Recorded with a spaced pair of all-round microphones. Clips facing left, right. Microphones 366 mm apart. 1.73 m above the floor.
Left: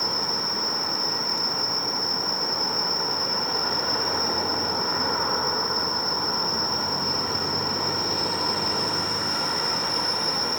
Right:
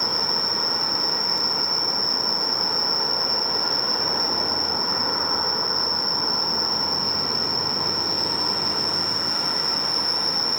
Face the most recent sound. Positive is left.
turn(degrees=45)  # may be behind; listen again after turning